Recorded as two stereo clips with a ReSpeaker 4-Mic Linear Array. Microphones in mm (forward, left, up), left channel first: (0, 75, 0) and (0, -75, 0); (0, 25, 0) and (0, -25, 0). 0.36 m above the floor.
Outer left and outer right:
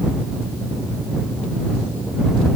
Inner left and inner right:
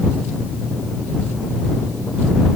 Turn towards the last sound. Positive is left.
No sound to turn to.